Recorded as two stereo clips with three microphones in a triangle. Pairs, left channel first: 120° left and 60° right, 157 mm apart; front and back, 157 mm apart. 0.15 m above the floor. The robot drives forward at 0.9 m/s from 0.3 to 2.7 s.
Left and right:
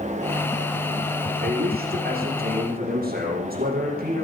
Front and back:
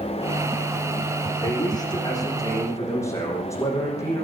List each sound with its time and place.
1.4 s a man speaking: 60° right, 6.5 m; by 4.2 s 70° right, 6 m